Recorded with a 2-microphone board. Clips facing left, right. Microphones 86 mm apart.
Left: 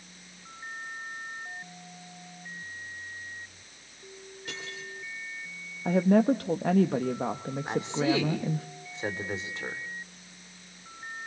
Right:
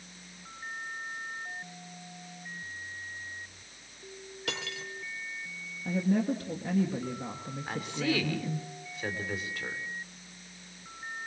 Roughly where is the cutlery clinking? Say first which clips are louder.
Right 3 dB; right.